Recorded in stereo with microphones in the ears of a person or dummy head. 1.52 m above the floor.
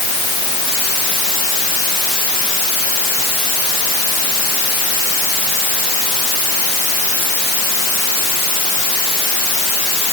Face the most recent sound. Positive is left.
No sound to turn to.